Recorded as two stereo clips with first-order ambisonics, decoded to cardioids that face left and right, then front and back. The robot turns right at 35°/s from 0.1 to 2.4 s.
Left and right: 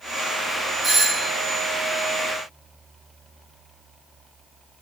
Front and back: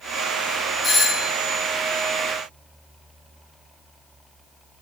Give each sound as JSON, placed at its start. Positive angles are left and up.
{"t": 0.8, "sound": "a doorbell", "azimuth_deg": -45, "distance_m": 0.8}